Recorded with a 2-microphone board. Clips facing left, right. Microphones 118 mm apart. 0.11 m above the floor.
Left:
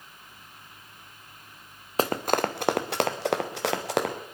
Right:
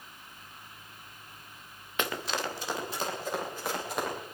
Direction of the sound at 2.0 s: 35° left (ahead or behind).